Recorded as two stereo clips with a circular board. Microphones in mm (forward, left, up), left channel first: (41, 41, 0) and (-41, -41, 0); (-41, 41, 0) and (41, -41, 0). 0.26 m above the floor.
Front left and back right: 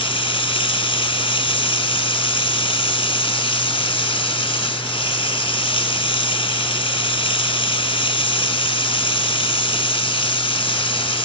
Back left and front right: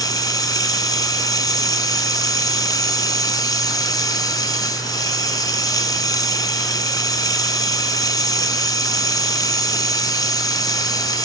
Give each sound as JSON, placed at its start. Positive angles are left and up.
{"t": 0.0, "sound": "running water", "azimuth_deg": 80, "distance_m": 1.2}